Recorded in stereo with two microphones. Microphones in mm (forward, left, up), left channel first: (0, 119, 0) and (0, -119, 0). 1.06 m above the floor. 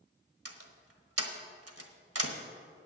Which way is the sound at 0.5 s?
80° right.